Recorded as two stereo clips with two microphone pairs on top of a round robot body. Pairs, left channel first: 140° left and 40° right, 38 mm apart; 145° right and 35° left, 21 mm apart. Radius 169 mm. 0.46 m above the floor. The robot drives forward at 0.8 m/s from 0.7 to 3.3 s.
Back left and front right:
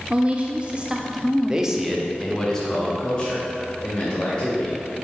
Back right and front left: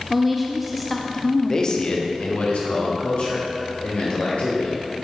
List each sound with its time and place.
0.1 s a woman speaking: 55° right, 0.8 m; by 1.9 s 155° right, 1.1 m
1.5 s a man speaking: 90° right, 1.0 m; by 4.8 s 155° right, 1.8 m